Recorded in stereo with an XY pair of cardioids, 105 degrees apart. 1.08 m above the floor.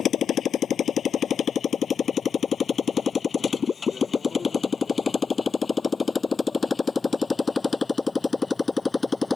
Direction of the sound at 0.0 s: 60° left.